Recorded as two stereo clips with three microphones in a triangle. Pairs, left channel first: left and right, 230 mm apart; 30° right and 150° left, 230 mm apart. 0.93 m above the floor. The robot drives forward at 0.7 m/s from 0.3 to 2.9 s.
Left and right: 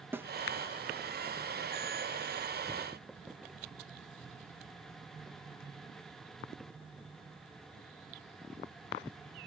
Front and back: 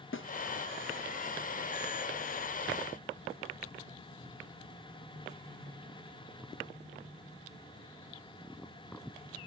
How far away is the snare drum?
About 0.6 m.